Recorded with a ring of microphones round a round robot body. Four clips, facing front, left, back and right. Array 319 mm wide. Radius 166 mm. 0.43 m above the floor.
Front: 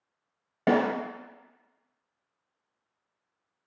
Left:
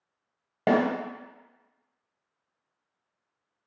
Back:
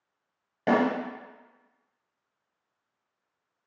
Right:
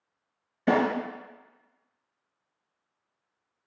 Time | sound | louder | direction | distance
0.7 | a snare drum | left 1 dB, even | 70° left | 1.2 m